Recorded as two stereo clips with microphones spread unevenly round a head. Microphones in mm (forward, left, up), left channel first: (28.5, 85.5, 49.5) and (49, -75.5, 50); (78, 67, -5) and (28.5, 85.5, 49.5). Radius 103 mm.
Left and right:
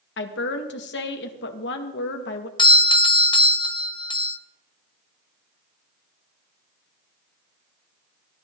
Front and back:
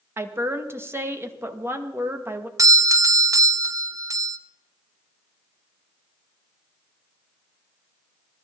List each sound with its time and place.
0.2 s a woman speaking: 110° left, 2 m
2.6 s a doorbell: 80° left, 1.0 m